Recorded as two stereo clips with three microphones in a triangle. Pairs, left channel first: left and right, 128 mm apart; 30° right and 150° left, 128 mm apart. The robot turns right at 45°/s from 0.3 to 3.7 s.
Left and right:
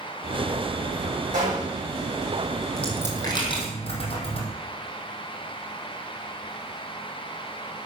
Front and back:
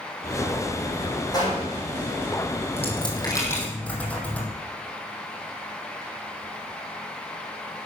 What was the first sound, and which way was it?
A gunshot, 90° right.